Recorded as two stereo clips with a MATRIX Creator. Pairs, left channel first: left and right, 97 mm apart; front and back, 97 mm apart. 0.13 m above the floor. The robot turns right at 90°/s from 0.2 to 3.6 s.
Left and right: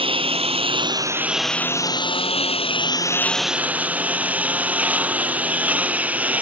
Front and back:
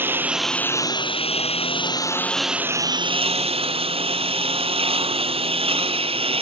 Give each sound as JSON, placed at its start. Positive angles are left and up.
{"t": 0.0, "sound": "a lawn mower", "azimuth_deg": -110}